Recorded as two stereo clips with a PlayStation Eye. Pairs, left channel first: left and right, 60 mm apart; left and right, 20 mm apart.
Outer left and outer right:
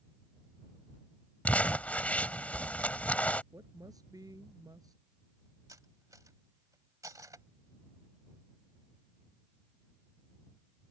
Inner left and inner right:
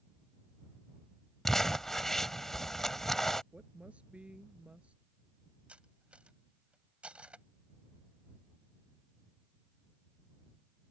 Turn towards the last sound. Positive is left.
turn(degrees=-70)  # may be behind; listen again after turning